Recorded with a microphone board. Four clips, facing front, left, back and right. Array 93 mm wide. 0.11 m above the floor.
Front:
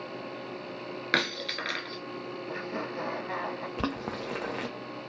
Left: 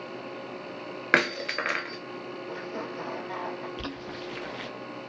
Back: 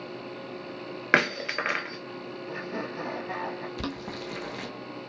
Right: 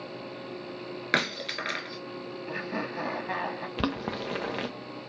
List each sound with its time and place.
1.1 s breaking glass: 140° left, 0.7 m
2.5 s laughter: 85° right, 2.5 m
3.8 s boiling: 60° right, 0.8 m